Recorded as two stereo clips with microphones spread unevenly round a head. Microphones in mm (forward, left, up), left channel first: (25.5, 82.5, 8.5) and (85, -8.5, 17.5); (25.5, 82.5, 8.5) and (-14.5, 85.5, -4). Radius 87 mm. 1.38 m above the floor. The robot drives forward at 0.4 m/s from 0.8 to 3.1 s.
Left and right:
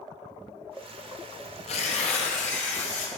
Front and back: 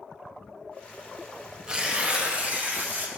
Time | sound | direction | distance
1.7 | tearing paper | 115° left | 0.9 m